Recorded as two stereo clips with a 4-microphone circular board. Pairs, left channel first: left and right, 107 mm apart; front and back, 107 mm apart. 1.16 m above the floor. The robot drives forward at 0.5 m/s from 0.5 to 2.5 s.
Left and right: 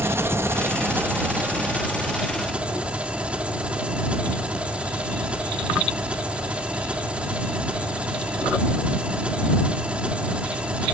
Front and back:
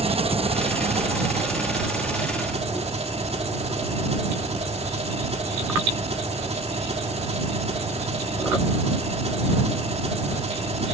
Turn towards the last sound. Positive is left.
turn(degrees=-170)